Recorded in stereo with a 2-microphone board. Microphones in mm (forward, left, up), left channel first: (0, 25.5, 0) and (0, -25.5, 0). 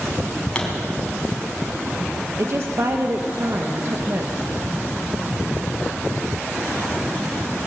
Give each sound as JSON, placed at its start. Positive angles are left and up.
{"t": 0.6, "sound": "a pop", "side_deg": 20, "distance_m": 4.0}
{"t": 2.4, "sound": "a woman speaking", "side_deg": -55, "distance_m": 1.2}